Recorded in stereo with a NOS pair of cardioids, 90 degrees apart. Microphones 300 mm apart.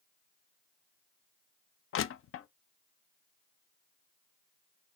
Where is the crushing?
45° left, 0.6 m.